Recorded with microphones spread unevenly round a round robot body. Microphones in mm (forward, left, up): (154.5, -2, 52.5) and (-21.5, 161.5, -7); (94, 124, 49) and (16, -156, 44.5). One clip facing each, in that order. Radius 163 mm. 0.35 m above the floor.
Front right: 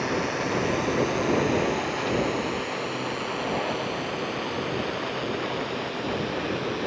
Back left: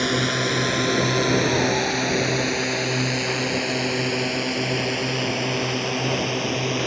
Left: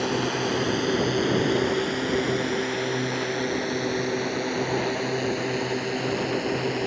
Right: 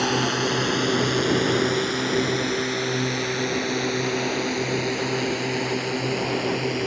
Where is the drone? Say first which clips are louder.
Back left 4 dB, right 2 dB; straight behind; by 6.9 s 175° left.